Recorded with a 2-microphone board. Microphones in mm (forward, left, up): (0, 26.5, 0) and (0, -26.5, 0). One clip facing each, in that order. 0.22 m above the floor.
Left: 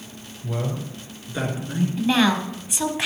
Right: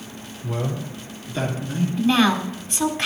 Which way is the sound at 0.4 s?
Centre (ahead or behind).